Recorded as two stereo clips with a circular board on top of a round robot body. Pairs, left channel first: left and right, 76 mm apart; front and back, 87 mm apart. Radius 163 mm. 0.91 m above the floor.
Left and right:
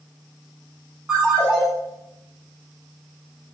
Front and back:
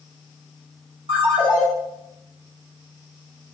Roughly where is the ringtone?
Behind.